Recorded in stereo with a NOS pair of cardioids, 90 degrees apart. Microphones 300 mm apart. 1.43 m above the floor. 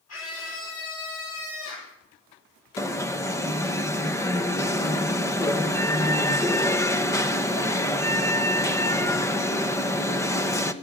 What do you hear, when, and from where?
0.1 s a scream: 55° left, 5.5 m
2.8 s an alarm: 10° left, 1.1 m